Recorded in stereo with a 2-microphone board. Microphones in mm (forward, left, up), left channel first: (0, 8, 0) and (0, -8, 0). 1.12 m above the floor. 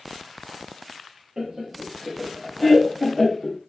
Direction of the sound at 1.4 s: 50° right (ahead or behind).